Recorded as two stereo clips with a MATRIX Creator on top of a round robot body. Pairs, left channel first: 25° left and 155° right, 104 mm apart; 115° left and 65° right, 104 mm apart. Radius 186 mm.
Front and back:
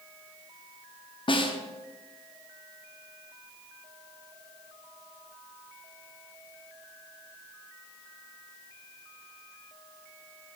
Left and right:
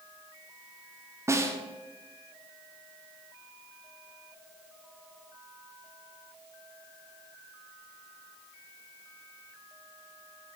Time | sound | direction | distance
1.3 | a snare drum | 5° right | 1.2 m